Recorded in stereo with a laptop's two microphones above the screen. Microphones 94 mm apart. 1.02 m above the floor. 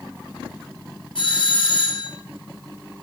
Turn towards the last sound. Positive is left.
turn(degrees=65)  # may be behind; listen again after turning